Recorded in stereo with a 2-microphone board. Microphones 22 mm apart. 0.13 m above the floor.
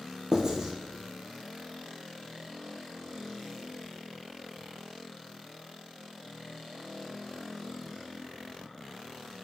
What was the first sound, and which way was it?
Writing, 30° right (ahead or behind).